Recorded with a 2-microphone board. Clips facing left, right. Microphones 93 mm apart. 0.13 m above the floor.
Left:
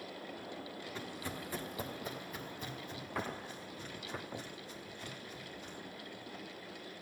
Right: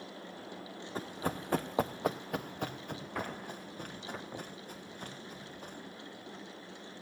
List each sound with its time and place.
0.9 s running footsteps: 45° right (ahead or behind), 0.6 m; by 5.8 s 50° right (ahead or behind), 2.5 m